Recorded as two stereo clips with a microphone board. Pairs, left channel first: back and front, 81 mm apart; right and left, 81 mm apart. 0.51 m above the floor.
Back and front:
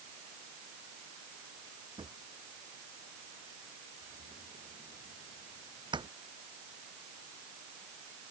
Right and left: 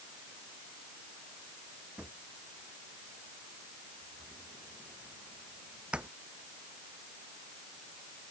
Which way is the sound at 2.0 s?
15° left.